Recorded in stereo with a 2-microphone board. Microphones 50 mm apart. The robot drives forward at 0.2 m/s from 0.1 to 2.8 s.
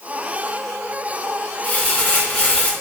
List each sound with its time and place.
1.6 s crumpling: 40° left (ahead or behind), 2.0 m; by 2.7 s 35° left (ahead or behind), 2 m